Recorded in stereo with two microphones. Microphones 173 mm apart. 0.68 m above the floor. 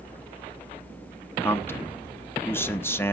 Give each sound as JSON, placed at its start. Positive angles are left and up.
{"t": 1.4, "sound": "a man speaking", "side_deg": 10, "distance_m": 0.7}